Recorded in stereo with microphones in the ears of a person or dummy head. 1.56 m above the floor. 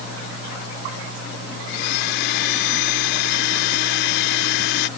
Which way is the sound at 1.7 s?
70° left (ahead or behind).